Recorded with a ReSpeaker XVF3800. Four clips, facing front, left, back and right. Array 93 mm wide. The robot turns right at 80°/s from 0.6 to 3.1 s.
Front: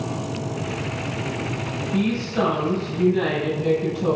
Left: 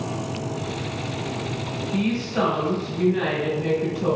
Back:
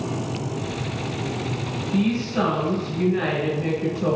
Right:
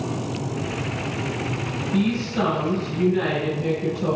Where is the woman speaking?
80° left, 1.1 m; by 4.2 s 175° left, 1.1 m.